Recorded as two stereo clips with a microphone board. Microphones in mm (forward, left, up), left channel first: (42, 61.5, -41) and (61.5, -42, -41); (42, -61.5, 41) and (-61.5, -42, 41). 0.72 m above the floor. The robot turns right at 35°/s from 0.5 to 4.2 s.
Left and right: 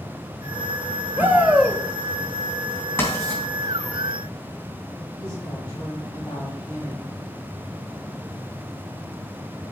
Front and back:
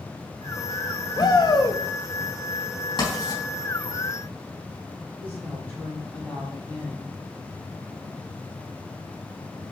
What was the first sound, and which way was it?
A shout, 20° right.